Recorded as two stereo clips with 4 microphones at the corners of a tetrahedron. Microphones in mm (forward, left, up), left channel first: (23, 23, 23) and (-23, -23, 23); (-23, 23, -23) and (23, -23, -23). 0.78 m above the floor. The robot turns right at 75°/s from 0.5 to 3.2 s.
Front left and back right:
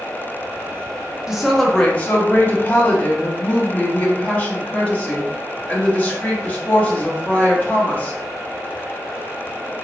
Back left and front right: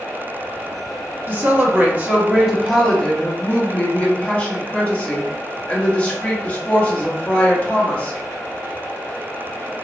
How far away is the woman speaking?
About 1.1 m.